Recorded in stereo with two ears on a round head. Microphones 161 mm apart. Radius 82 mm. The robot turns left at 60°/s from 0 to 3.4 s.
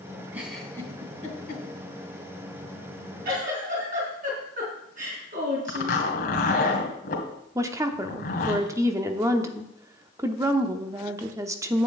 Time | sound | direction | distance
0.3 | a giggle | 15° right (ahead or behind) | 3 m
3.2 | a giggle | 60° right (ahead or behind) | 4 m
5.7 | a zipper | 50° left (ahead or behind) | 2 m
7.5 | a woman speaking | 15° right (ahead or behind) | 0.7 m